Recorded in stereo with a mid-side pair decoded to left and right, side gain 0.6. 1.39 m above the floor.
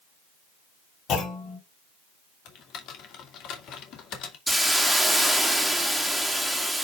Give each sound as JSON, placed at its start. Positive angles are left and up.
{"t": 1.1, "sound": "a clunk", "azimuth_deg": 50, "distance_m": 3.5}
{"t": 2.5, "sound": "typing on a keyboard", "azimuth_deg": 55, "distance_m": 2.0}
{"t": 4.5, "sound": "a hiss", "azimuth_deg": -5, "distance_m": 2.0}